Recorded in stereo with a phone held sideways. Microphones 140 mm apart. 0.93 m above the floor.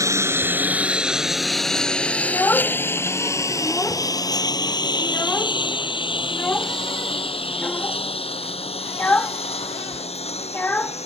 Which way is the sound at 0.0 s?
20° right (ahead or behind).